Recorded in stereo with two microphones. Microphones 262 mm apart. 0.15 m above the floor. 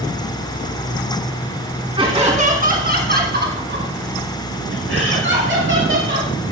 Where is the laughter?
20° right (ahead or behind), 1.8 m; by 6.3 s 45° right (ahead or behind), 4.5 m.